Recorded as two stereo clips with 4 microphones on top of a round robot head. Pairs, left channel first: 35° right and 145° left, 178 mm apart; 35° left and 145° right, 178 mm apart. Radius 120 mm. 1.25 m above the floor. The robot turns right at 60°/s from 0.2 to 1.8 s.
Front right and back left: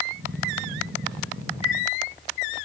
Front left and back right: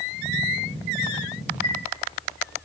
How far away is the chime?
About 9 m.